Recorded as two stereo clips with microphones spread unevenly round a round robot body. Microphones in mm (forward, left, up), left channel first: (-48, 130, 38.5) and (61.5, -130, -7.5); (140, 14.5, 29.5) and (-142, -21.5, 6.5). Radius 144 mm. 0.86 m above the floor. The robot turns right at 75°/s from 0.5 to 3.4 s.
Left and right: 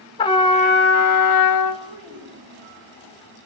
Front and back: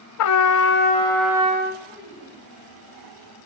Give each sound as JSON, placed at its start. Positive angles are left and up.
{"t": 0.2, "sound": "a trumpet", "azimuth_deg": 40, "distance_m": 0.8}
{"t": 1.8, "sound": "a child speaking", "azimuth_deg": -70, "distance_m": 4.5}